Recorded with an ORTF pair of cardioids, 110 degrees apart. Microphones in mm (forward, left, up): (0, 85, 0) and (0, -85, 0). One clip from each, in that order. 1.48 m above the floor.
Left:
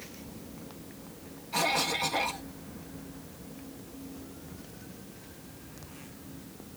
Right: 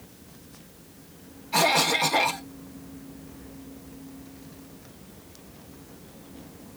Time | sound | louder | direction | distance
1.5 | a cough | right 7 dB | 45° right | ?